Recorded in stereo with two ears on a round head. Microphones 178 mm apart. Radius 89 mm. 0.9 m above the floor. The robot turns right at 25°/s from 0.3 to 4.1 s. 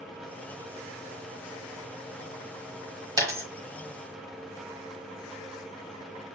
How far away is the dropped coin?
About 1.1 m.